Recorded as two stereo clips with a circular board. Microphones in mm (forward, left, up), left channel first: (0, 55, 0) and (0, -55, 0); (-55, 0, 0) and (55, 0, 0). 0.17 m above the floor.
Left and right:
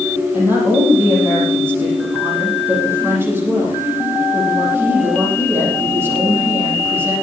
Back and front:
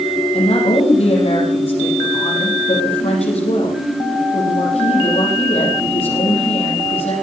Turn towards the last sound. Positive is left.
turn(degrees=-160)